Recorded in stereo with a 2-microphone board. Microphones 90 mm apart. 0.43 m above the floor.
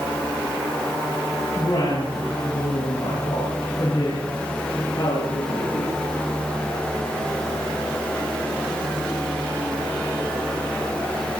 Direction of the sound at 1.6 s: 60° left (ahead or behind).